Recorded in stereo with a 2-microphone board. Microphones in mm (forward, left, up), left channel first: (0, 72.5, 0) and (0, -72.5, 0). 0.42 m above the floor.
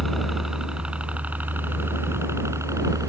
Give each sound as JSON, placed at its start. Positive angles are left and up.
{"t": 0.0, "sound": "a helicopter", "side_deg": 0}